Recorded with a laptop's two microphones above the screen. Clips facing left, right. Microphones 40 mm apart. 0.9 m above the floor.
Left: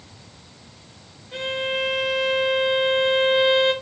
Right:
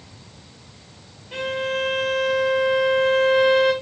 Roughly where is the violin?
Right.